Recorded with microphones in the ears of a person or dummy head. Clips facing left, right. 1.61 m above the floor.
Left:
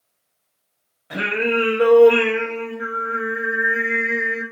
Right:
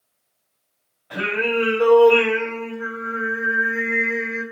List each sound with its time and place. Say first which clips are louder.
1.1 s singing: left 1 dB; 30° left (ahead or behind), 1.2 m